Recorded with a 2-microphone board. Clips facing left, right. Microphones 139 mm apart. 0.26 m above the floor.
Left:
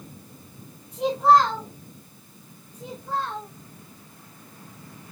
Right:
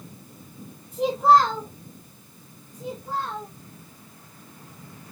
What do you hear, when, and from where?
0.9 s a child speaking: 5° right (ahead or behind), 3 m
2.7 s a child speaking: 20° right (ahead or behind), 2.5 m